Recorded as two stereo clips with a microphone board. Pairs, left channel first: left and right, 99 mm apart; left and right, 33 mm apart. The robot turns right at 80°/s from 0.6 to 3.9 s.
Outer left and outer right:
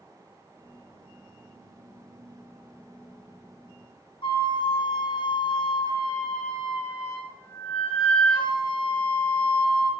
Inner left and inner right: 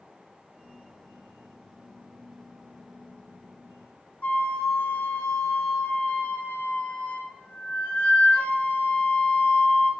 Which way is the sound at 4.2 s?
60° left (ahead or behind).